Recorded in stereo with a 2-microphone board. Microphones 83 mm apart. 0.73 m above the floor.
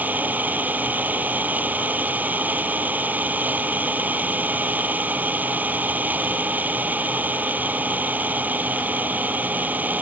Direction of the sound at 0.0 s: 20° right (ahead or behind).